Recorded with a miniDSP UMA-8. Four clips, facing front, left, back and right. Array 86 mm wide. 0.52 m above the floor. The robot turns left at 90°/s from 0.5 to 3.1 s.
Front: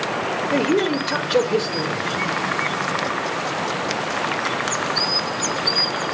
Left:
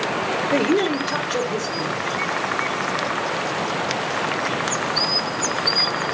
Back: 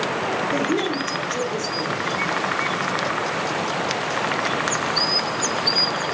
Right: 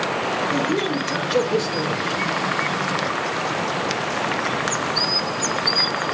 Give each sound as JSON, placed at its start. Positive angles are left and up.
{"t": 0.5, "sound": "a man speaking", "azimuth_deg": 60, "distance_m": 1.4}